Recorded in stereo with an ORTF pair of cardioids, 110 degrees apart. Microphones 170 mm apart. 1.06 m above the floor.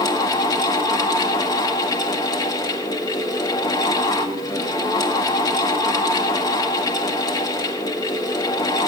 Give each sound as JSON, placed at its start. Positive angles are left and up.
{"t": 0.0, "sound": "a fan", "azimuth_deg": 25, "distance_m": 1.4}